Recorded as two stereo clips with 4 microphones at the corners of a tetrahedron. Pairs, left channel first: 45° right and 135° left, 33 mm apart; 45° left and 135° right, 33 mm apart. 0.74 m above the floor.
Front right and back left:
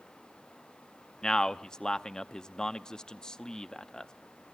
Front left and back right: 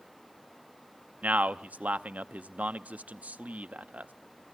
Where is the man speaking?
110° right, 0.7 m.